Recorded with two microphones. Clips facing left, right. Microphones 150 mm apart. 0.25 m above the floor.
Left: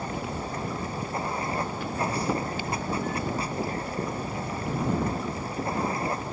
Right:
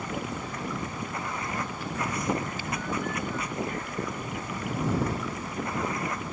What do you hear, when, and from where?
0.0 s running water: 30° left (ahead or behind)